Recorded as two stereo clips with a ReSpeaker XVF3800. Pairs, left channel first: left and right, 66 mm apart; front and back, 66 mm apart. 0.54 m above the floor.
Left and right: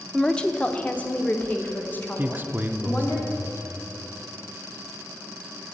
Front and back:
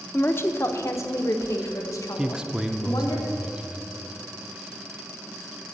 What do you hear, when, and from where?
0.1 s a woman speaking: 15° left, 0.7 m; by 3.2 s 30° left, 2.5 m
2.2 s a man speaking: 110° right, 0.7 m